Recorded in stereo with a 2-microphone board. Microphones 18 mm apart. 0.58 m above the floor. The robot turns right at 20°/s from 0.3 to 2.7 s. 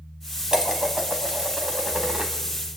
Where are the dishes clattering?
135° right, 2.5 m; by 2.3 s 100° right, 2.5 m.